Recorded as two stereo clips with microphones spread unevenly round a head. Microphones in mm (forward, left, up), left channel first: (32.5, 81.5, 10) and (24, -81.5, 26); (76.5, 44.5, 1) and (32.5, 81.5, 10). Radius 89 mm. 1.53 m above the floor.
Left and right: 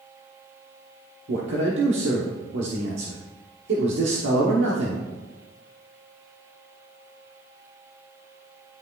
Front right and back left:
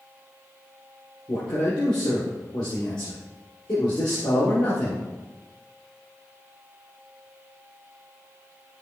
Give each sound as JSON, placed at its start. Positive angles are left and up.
{"t": 1.3, "sound": "a man speaking", "azimuth_deg": -85, "distance_m": 1.1}